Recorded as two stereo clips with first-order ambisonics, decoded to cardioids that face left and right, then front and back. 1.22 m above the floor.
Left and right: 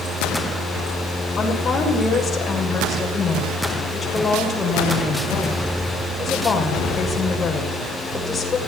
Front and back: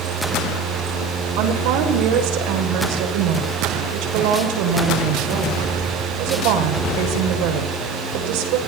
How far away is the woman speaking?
About 6.5 m.